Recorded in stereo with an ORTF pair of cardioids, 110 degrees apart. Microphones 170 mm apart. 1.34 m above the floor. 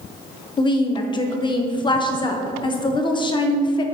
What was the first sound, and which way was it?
A woman speaking, 30° left.